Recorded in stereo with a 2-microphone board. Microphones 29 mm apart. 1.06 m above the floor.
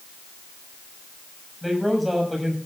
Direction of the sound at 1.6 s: 5° right (ahead or behind).